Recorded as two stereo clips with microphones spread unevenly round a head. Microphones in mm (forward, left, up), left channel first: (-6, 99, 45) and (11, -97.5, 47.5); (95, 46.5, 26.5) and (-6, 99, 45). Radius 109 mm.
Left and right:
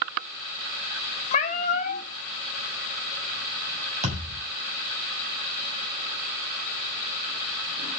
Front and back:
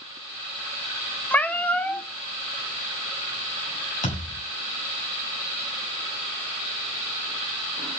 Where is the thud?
25° right, 7 m.